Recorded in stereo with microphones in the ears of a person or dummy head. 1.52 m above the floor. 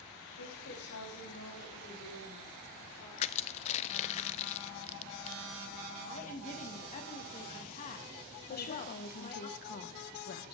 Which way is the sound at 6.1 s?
45° left (ahead or behind).